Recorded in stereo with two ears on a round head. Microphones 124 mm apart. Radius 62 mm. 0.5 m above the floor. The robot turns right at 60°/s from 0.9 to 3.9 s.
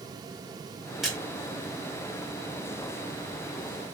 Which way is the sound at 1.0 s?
Centre (ahead or behind).